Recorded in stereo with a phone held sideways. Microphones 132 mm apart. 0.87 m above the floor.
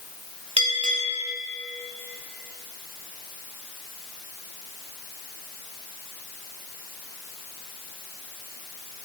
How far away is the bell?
About 2.0 m.